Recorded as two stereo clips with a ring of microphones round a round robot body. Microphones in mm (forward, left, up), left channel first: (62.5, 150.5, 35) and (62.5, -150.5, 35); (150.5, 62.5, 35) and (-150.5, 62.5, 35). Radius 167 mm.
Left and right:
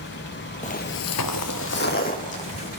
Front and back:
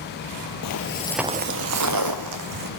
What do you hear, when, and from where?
0.6 s footsteps: 25° left, 0.8 m; by 2.7 s 165° left, 2 m